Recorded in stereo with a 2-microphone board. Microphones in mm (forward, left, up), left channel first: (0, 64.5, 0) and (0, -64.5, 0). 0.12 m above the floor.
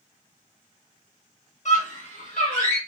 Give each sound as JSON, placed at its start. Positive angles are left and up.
{"t": 1.6, "sound": "a scream", "side_deg": 60, "distance_m": 3.0}